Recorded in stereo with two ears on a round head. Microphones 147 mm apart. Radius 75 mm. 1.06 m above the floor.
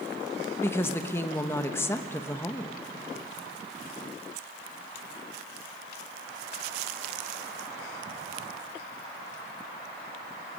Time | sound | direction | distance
0.6 | a woman speaking | 15° left (ahead or behind) | 1.0 m